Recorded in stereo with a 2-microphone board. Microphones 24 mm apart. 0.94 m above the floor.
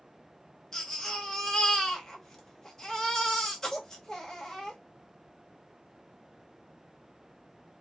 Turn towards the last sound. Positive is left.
turn(degrees=20)  # may be behind; listen again after turning